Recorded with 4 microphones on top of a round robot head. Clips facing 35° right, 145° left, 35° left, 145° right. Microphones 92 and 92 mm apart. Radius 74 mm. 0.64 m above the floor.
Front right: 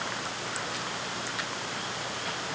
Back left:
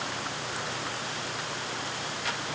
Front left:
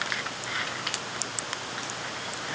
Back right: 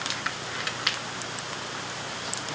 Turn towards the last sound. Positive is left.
No sound to turn to.